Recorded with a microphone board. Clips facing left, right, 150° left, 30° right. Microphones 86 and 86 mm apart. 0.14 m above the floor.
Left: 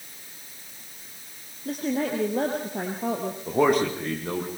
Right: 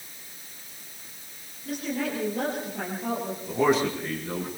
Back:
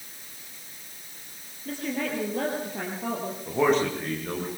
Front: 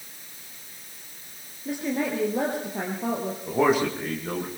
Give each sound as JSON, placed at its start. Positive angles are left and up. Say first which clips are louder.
{"t": 1.6, "sound": "a woman speaking", "louder": "left 3 dB, front 3 dB", "azimuth_deg": 40, "distance_m": 3.0}
{"t": 3.5, "sound": "a man speaking", "louder": "left 2 dB, front 1 dB", "azimuth_deg": 50, "distance_m": 6.0}